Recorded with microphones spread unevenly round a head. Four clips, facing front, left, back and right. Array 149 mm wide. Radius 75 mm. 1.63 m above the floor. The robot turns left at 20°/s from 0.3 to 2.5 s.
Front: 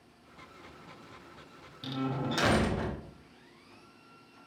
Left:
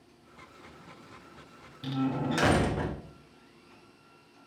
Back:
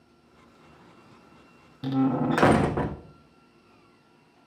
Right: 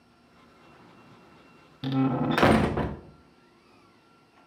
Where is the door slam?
130° right, 0.5 m; by 3.0 s 145° right, 0.5 m.